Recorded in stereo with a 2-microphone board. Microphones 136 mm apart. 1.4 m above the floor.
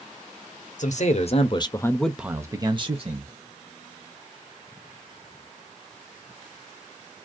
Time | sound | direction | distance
0.8 | a man speaking | 65° left (ahead or behind) | 0.8 m